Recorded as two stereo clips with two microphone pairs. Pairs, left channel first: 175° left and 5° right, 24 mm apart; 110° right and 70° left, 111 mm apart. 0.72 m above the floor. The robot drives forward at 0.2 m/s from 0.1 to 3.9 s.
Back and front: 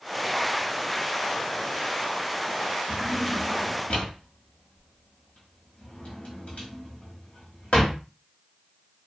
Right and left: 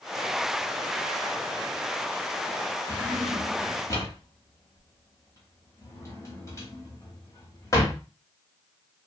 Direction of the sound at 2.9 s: 170° right.